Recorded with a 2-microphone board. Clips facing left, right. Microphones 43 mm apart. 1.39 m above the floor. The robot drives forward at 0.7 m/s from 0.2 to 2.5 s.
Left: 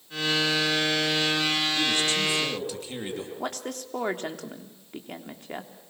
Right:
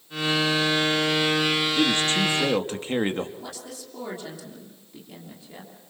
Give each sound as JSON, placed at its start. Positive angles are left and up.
{"t": 1.8, "sound": "a man speaking", "side_deg": -40, "distance_m": 3.0}
{"t": 3.4, "sound": "a woman speaking", "side_deg": 55, "distance_m": 3.0}